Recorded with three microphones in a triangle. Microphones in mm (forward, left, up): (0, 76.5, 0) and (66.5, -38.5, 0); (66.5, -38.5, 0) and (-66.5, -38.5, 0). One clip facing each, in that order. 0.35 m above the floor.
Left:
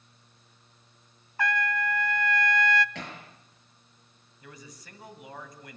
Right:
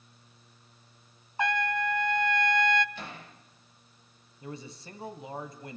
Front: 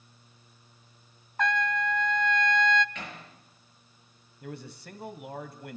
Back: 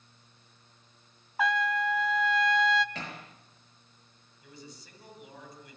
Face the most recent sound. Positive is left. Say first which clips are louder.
# right 7 dB, front 8 dB
turn(degrees=0)